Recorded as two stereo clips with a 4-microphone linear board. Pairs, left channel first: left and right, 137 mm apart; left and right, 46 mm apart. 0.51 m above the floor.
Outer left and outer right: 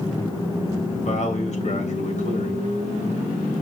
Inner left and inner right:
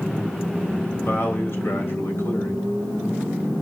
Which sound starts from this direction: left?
A man speaking, at 0.9 s.